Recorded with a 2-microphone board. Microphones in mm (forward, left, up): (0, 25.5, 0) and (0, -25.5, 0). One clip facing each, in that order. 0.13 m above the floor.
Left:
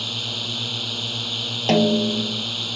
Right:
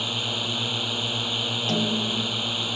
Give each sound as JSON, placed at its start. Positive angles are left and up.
{"t": 0.0, "sound": "a drone", "side_deg": -20}
{"t": 1.7, "sound": "a snare drum", "side_deg": 70}